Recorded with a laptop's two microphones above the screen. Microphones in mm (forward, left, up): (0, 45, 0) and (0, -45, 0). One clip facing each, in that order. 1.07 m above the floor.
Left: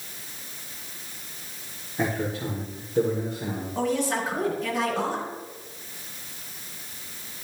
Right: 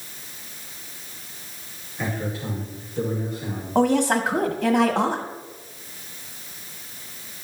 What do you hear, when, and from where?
2.0 s a man speaking: 80° left, 2.5 m; by 3.6 s 60° left (ahead or behind), 3 m
3.8 s a woman speaking: 80° right, 1.4 m